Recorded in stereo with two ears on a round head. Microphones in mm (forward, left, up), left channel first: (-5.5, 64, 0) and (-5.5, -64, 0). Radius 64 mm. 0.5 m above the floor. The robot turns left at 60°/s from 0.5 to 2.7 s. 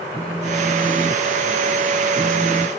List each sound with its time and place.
0.1 s a phone buzzing: 10° right (ahead or behind)